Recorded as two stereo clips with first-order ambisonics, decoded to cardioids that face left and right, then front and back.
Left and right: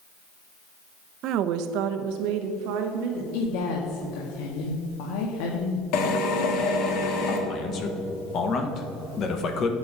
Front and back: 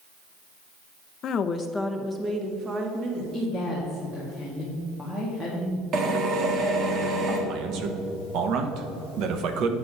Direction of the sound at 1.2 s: 50° right.